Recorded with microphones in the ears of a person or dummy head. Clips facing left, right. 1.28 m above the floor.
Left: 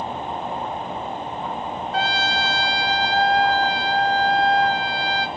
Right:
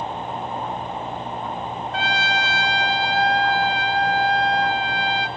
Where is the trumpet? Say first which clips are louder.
Left 1 dB; 40° left (ahead or behind), 1.1 m.